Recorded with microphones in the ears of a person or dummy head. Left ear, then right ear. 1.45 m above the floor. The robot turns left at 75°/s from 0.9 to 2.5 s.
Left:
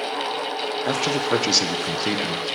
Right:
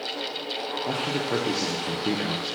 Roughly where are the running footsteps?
I don't hear running footsteps.